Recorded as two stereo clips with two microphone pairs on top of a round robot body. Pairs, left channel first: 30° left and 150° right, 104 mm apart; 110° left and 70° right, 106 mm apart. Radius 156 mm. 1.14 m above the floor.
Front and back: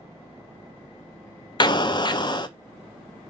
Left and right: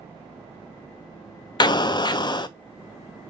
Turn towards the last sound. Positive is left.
turn(degrees=65)